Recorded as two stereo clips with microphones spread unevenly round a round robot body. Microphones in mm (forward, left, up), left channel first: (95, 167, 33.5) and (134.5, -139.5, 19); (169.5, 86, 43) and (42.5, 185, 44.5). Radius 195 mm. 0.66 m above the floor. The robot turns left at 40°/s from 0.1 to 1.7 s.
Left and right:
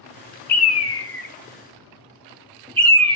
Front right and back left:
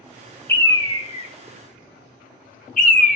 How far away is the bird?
About 0.7 m.